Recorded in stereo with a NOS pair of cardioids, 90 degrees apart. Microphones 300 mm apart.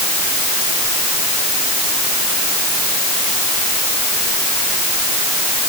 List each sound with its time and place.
Only background noise.